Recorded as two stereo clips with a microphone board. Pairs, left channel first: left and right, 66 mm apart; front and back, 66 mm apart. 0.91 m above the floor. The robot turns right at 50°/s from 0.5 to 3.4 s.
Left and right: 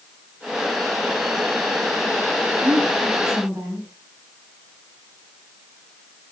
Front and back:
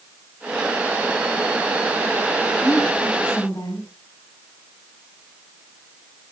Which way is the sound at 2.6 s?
95° right.